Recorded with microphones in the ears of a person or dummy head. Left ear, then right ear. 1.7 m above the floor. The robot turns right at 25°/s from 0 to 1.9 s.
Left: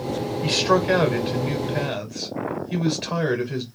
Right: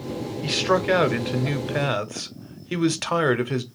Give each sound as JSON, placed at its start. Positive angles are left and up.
{"t": 0.4, "sound": "a man speaking", "azimuth_deg": -170, "distance_m": 0.7}